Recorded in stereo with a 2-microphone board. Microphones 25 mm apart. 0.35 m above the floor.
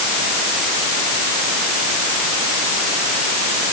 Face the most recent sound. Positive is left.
No sound to turn to.